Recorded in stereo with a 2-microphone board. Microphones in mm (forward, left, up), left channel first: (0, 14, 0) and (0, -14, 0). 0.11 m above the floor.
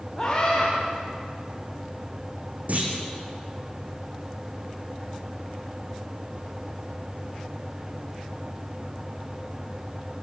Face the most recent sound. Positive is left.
turn(degrees=-65)  # may be behind; listen again after turning